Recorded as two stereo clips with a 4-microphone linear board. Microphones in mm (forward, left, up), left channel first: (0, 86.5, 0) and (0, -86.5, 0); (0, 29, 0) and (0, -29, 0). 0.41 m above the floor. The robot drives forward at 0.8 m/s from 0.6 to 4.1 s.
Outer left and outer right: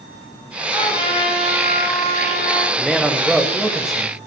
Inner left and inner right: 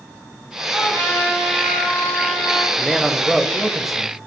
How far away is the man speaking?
About 1.0 m.